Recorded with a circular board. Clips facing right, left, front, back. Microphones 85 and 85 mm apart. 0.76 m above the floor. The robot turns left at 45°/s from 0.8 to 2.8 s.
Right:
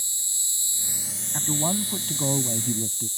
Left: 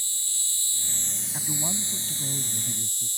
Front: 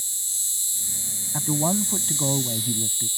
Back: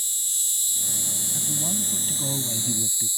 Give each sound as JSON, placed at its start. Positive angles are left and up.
{"t": 0.0, "sound": "an insect", "azimuth_deg": -160}
{"t": 1.3, "sound": "a man speaking", "azimuth_deg": -20}